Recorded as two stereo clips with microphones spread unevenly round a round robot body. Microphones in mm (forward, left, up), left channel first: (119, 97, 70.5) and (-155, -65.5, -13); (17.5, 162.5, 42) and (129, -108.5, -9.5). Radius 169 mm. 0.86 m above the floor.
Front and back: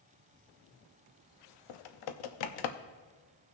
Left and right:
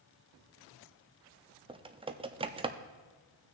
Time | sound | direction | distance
1.7 | typing on a keyboard | 5° left | 0.6 m